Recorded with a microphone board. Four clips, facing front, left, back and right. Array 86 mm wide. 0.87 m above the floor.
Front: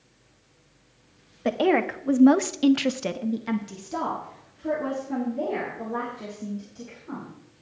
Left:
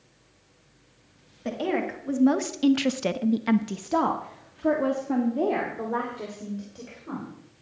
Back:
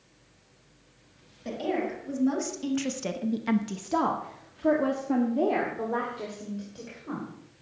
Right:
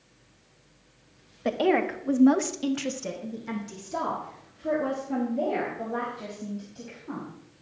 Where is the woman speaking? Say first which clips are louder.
Right 4 dB, front 8 dB; 20° right, 1.4 m; by 7.3 s 135° left, 3.5 m.